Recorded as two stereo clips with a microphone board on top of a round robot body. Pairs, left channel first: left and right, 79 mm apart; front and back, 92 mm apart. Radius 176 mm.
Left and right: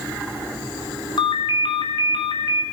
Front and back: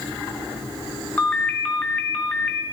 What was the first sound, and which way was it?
A ringtone, 75° left.